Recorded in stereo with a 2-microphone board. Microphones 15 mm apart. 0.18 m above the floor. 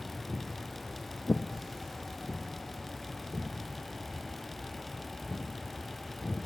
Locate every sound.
0.3 s footsteps: centre (ahead or behind), 1.1 m; by 6.5 s 40° left (ahead or behind), 7.5 m